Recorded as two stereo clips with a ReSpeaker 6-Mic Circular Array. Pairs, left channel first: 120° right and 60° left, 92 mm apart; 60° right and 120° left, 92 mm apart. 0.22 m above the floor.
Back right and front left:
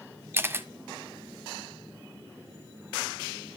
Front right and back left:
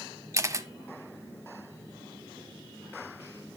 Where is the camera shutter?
100° left, 0.7 m.